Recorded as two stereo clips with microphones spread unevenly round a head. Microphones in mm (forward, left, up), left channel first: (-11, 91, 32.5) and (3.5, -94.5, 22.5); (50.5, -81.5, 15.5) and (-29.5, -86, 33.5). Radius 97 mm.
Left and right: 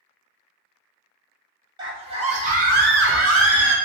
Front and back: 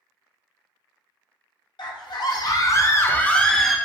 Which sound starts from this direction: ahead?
A scream, at 1.8 s.